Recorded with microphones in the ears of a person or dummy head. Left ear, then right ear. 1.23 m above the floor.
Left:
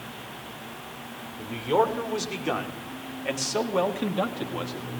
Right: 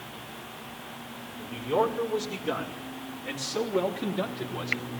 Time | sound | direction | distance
1.4 | a man speaking | 80° left | 5.5 m